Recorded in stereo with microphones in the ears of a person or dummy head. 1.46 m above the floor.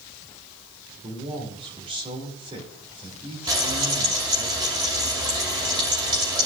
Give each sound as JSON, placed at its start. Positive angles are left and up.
{"t": 1.0, "sound": "a man speaking", "side_deg": -30, "distance_m": 2.5}
{"t": 3.5, "sound": "frying", "side_deg": -20, "distance_m": 2.5}